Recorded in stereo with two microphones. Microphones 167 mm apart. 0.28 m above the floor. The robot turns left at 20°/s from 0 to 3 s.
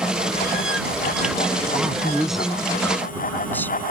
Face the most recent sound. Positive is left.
turn(degrees=10)  # may be behind; listen again after turning